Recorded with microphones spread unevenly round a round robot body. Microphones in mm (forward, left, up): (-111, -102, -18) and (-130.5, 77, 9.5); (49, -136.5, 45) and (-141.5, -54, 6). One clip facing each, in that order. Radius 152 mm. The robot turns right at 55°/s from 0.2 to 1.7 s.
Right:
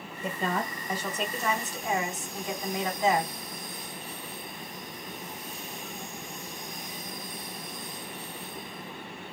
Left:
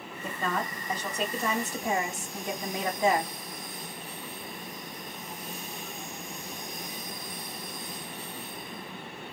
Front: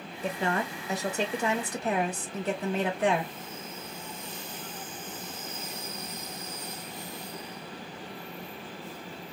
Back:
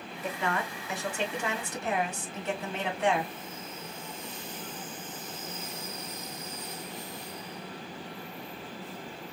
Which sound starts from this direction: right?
A woman speaking, at 0.2 s.